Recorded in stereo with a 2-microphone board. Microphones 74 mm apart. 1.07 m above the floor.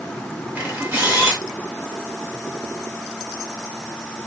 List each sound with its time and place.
0.6 s a camera shutter: 20° right (ahead or behind), 2 m